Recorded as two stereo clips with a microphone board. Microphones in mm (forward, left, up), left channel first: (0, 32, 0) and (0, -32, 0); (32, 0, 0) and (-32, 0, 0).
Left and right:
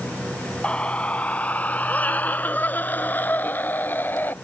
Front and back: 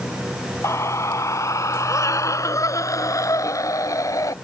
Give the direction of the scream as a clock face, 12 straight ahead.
11 o'clock.